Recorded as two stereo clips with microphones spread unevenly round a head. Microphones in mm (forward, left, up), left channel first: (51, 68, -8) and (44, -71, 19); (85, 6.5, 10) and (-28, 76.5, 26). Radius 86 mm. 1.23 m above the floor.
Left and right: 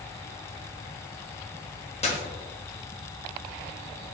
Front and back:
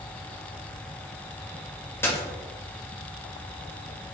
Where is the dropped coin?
45° left, 1.9 m.